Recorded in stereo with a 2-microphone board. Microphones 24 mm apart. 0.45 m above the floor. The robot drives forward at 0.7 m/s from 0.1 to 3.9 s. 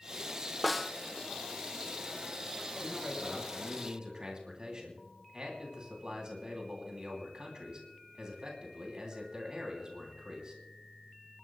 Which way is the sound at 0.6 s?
Centre (ahead or behind).